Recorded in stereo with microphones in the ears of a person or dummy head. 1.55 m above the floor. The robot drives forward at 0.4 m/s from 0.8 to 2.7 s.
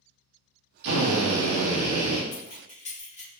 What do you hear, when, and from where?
0.8 s a drill: 75° right (ahead or behind), 0.8 m; by 2.2 s 55° right (ahead or behind), 0.9 m
2.3 s keys jangling: 35° left (ahead or behind), 1.0 m; by 3.3 s 30° left (ahead or behind), 1.1 m